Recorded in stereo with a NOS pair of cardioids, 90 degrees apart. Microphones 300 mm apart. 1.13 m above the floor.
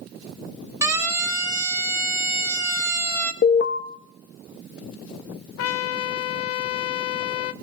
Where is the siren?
10° right, 3.5 m.